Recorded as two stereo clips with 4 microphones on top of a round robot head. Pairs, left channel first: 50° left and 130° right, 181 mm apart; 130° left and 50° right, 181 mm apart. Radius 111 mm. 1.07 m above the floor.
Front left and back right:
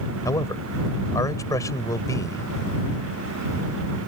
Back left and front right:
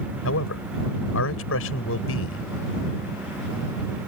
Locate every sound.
0.2 s a man speaking: 125° left